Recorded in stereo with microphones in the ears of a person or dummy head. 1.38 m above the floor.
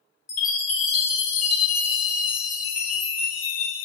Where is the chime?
15° left (ahead or behind), 0.8 m.